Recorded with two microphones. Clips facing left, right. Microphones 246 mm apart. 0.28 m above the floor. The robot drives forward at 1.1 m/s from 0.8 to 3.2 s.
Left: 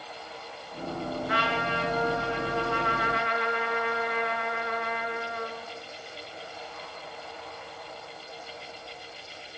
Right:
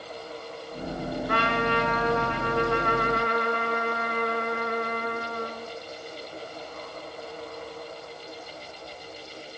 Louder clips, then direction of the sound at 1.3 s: Right 4 dB; 55° right (ahead or behind).